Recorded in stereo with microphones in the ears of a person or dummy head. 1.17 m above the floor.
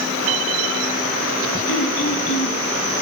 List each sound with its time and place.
1.7 s throat clearing: 75° left (ahead or behind), 4.5 m